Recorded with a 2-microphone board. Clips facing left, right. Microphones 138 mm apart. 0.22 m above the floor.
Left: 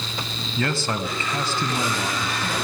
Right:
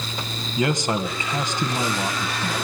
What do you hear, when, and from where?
0.6 s a man speaking: 20° right (ahead or behind), 1.3 m